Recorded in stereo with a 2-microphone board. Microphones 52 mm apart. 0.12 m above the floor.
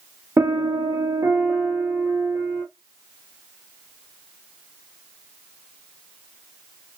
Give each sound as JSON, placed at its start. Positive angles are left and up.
{"t": 0.4, "sound": "a piano", "side_deg": -50, "distance_m": 0.8}